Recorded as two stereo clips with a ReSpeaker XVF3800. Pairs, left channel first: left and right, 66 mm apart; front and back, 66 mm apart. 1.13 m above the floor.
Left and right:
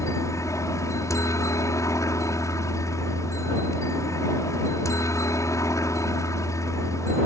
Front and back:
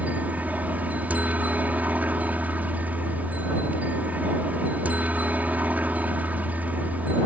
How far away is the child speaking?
I don't hear a child speaking.